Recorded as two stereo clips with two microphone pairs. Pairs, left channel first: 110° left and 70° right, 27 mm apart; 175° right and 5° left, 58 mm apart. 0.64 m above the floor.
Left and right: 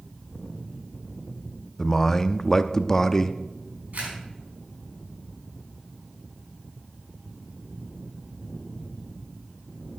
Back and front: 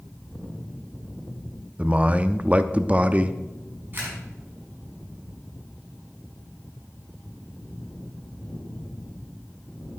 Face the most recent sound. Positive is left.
turn(degrees=-50)